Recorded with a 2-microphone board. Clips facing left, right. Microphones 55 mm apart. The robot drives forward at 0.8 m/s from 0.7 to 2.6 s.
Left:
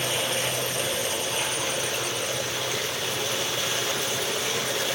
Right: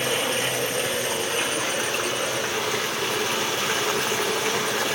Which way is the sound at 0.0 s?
45° right (ahead or behind).